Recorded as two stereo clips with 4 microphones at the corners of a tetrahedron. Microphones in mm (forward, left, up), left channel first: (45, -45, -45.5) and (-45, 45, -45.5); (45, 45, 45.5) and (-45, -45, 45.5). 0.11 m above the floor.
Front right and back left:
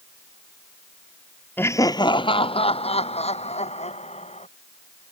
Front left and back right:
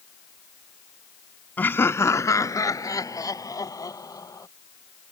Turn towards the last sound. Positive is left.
turn(degrees=-15)